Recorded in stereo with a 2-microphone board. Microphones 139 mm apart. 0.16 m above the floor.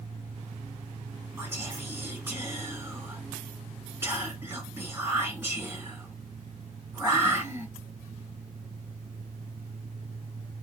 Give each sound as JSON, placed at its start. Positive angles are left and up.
{"t": 1.4, "sound": "whispering", "side_deg": -20, "distance_m": 2.0}